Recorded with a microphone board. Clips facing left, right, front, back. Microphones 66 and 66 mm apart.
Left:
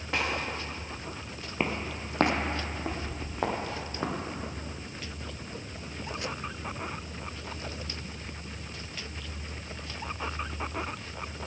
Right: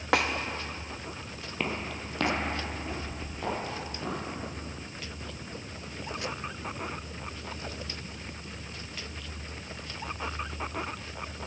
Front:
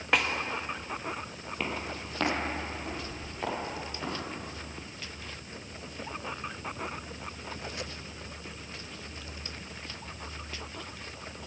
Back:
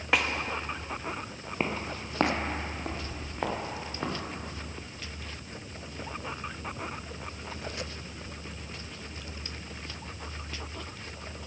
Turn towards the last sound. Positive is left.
turn(degrees=120)